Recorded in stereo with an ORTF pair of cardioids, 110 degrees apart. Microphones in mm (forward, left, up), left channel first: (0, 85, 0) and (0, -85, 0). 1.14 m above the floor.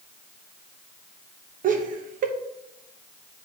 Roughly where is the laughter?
Ahead right.